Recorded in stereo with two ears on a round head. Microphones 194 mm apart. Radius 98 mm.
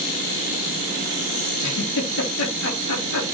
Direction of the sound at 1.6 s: 70° left (ahead or behind).